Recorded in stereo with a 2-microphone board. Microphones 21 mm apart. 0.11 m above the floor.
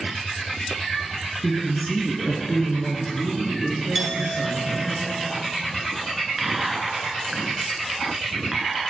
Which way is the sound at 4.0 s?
5° right (ahead or behind).